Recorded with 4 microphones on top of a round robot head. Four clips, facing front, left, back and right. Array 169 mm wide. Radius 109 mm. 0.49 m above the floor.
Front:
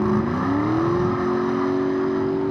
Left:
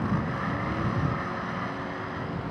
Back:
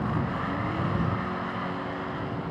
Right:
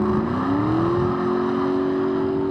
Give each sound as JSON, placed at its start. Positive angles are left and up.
{"t": 0.0, "sound": "a vehicle", "azimuth_deg": -45}